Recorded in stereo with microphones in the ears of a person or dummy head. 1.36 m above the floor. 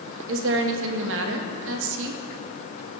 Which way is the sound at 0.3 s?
75° right (ahead or behind).